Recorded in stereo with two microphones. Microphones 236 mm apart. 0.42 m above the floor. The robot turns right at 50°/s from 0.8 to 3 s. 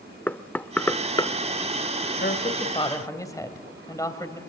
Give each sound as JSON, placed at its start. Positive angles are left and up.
{"t": 0.3, "sound": "knocking", "side_deg": 5, "distance_m": 0.6}
{"t": 2.2, "sound": "a woman speaking", "azimuth_deg": 125, "distance_m": 2.5}